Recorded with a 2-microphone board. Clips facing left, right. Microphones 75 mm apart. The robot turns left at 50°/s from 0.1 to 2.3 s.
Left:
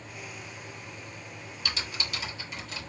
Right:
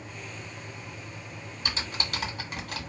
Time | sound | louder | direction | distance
1.6 | typing on a keyboard | right 2 dB | 30° right (ahead or behind) | 1.1 m